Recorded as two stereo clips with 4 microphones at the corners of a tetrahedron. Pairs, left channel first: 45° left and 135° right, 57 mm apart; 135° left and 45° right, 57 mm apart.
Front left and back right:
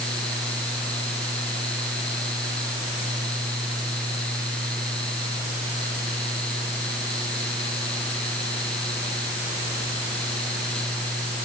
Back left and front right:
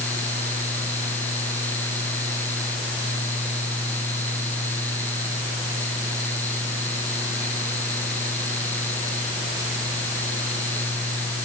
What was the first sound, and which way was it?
Only background noise.